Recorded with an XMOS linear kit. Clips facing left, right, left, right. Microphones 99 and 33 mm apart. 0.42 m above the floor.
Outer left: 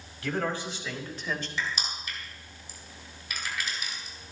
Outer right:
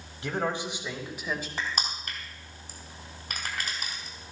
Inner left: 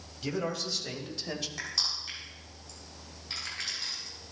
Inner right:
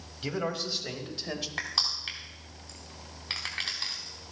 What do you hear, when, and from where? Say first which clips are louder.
0.2 s a man speaking: even, inner right 1 dB; 20° right (ahead or behind), 2.5 m; by 1.5 s 5° right (ahead or behind), 2.0 m
1.6 s crushing: outer right 1 dB, inner right 2 dB; 50° right (ahead or behind), 4 m